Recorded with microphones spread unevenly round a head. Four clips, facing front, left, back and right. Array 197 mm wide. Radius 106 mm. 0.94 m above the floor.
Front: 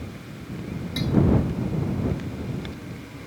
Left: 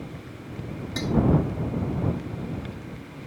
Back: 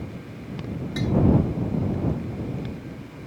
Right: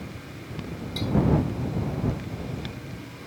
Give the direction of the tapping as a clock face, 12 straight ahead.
9 o'clock.